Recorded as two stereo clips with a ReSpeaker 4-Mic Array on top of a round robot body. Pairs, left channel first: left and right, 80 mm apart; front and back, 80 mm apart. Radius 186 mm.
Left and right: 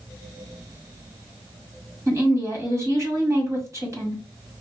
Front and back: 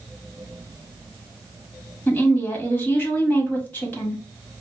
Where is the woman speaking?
60° right, 1.7 m.